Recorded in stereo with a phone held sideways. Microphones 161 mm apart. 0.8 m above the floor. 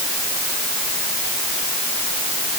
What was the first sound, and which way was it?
Only background noise.